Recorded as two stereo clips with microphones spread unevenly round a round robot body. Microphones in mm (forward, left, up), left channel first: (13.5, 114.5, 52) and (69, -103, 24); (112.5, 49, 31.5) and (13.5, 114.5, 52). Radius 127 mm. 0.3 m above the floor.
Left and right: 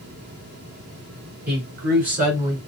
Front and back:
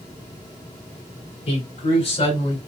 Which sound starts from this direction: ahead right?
A man speaking, at 1.5 s.